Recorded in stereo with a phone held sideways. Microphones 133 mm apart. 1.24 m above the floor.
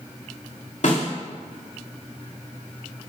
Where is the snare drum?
65° left (ahead or behind), 3 m.